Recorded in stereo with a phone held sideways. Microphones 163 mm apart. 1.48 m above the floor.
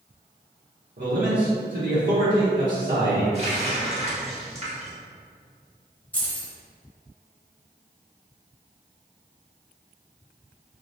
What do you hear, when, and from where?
1.0 s a man speaking: 70° right (ahead or behind), 1.2 m
3.3 s a running tap: 40° right (ahead or behind), 1.2 m
6.1 s keys jangling: 10° left (ahead or behind), 1.0 m